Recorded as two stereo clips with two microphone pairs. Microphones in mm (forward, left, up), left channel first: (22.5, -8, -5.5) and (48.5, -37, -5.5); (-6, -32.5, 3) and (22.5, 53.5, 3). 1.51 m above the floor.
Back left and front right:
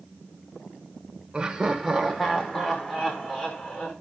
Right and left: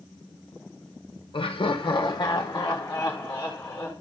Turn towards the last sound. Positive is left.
turn(degrees=-175)